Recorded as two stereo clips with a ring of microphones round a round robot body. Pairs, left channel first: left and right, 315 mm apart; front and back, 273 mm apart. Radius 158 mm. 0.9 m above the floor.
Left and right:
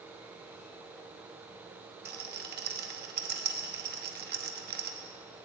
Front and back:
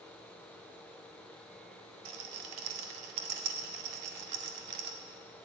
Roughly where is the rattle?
Behind right.